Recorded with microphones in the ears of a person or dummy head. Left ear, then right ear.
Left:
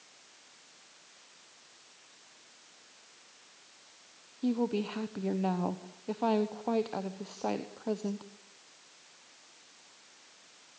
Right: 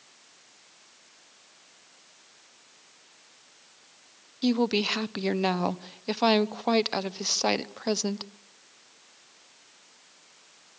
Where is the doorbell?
I don't hear a doorbell.